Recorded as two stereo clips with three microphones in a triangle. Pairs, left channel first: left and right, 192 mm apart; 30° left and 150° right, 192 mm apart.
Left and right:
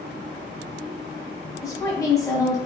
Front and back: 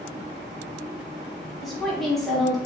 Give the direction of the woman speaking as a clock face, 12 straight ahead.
8 o'clock.